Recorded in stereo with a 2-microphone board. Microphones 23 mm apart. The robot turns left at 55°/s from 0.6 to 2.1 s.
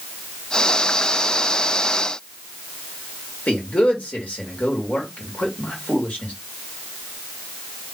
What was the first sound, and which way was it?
A man speaking, 80° left.